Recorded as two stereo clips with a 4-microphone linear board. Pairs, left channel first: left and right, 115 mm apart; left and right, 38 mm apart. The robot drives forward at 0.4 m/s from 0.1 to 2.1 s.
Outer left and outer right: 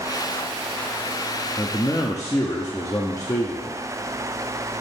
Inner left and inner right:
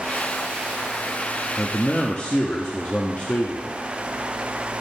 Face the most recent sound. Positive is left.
turn(degrees=30)  # may be behind; listen again after turning